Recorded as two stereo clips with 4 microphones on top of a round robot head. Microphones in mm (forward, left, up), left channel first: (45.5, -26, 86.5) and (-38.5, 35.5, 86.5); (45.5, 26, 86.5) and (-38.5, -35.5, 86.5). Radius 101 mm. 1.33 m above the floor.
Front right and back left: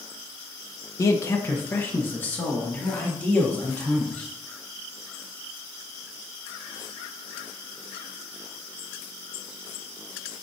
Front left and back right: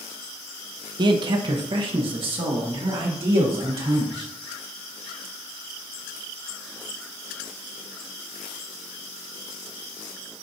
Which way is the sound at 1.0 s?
95° right.